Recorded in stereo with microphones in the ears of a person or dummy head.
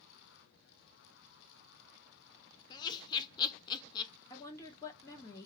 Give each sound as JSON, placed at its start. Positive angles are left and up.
{"t": 2.7, "sound": "laughter", "side_deg": 20, "distance_m": 0.6}
{"t": 4.3, "sound": "a woman speaking", "side_deg": 15, "distance_m": 1.2}